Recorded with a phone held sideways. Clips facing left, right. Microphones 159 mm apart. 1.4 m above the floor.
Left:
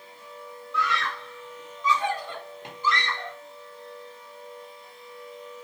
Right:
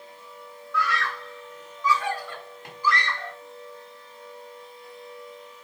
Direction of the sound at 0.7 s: 20° left (ahead or behind).